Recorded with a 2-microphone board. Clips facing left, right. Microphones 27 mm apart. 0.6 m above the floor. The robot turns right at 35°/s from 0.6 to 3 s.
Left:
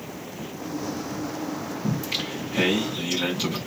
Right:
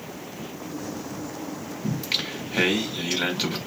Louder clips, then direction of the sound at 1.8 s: Right 2 dB; 95° right.